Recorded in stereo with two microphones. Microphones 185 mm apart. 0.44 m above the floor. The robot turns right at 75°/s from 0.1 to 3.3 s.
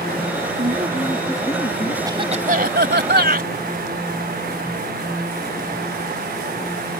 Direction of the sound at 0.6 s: 50° right.